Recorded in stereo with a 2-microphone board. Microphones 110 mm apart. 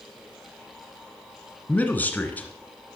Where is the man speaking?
15° left (ahead or behind), 1.3 m.